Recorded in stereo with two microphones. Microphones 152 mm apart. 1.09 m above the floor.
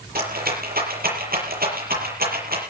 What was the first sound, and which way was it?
A rattle, 80° right.